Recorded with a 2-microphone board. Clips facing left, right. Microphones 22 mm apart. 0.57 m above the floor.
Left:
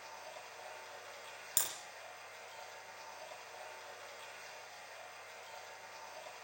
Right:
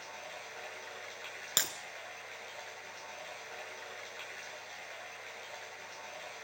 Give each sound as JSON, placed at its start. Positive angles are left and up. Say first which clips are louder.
{"t": 0.0, "sound": "running water", "louder": "right 4 dB", "side_deg": -70, "distance_m": 8.0}
{"t": 1.6, "sound": "breaking glass", "louder": "right 7 dB", "side_deg": -40, "distance_m": 2.5}